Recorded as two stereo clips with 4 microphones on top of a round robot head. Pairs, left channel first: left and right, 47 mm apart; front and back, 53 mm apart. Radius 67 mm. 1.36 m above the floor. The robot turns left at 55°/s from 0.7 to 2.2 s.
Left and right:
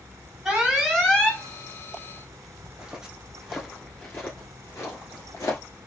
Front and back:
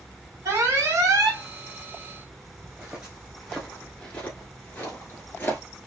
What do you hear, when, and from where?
0.5 s an alarm: 170° right, 2.5 m; by 1.4 s 150° left, 2.5 m
2.6 s footsteps: 125° right, 1.4 m; by 5.6 s 45° left, 1.7 m